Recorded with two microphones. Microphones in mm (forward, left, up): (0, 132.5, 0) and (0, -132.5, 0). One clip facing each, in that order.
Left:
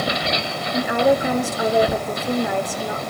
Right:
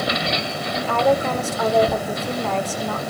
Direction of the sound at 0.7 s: 15° left (ahead or behind).